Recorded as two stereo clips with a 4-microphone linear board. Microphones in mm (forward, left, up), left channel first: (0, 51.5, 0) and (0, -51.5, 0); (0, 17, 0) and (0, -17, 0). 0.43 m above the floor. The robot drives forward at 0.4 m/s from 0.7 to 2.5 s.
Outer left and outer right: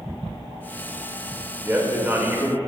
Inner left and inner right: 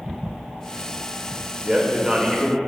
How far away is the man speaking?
About 1.7 m.